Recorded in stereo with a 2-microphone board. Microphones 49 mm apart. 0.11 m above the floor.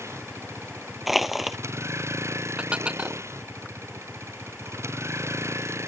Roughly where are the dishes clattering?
Right.